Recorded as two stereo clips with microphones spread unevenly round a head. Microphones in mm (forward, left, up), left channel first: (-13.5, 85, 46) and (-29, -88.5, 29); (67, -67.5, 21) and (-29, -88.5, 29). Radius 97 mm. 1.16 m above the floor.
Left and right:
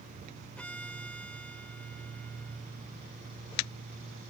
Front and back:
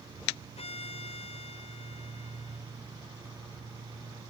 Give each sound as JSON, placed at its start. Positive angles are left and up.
{"t": 0.6, "sound": "a violin", "azimuth_deg": 0}